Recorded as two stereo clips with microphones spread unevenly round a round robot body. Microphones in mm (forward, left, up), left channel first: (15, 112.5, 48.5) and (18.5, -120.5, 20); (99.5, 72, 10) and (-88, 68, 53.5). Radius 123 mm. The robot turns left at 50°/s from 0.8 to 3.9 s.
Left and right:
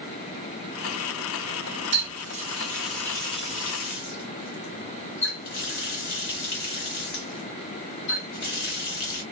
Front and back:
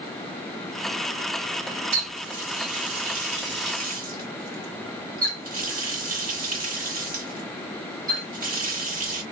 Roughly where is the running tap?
Behind right.